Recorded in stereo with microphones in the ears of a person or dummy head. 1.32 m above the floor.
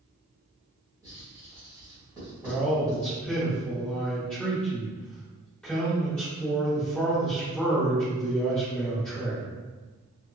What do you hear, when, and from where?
1.0 s writing: 10° right (ahead or behind), 1.9 m
2.4 s a man speaking: 5° left (ahead or behind), 1.6 m